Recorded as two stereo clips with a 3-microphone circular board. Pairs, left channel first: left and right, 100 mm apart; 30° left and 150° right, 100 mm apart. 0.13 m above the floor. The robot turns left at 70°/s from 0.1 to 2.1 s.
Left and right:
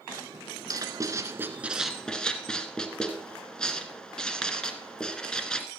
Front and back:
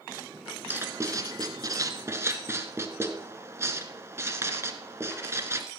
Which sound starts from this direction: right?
Writing, at 0.7 s.